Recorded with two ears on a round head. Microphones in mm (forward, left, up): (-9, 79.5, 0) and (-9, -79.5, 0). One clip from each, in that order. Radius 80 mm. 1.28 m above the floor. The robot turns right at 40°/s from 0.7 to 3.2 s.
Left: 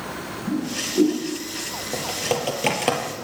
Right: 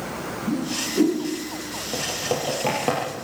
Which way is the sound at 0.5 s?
45° right (ahead or behind).